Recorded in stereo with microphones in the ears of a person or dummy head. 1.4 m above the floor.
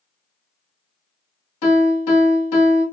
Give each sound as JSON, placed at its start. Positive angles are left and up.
{"t": 1.6, "sound": "a piano", "side_deg": 80, "distance_m": 1.9}